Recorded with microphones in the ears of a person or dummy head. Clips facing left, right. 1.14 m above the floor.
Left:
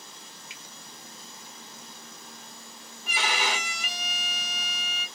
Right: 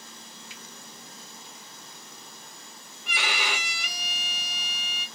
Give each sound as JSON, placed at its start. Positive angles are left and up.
{"t": 0.5, "sound": "a finger snap", "side_deg": 15, "distance_m": 1.7}
{"t": 3.0, "sound": "a violin", "side_deg": 35, "distance_m": 3.0}